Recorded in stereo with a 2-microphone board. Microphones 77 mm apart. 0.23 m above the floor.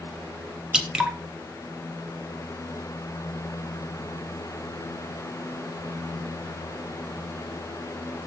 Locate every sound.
0.7 s dripping: 10° right (ahead or behind), 0.9 m